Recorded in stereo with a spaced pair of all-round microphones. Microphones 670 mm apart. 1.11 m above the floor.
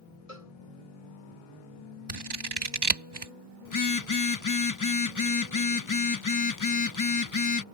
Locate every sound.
0.3 s a cowbell: 55° left (ahead or behind)
2.1 s scissors: 35° right (ahead or behind)
3.6 s a phone buzzing: 30° left (ahead or behind)